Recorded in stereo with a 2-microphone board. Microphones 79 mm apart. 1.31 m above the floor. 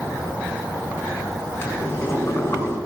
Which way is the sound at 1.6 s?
30° left (ahead or behind).